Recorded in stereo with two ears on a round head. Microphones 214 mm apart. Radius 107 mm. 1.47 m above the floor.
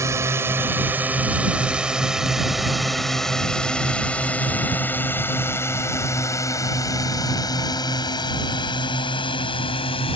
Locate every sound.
0.0 s a drone: 10° right (ahead or behind); by 10.2 s 20° left (ahead or behind)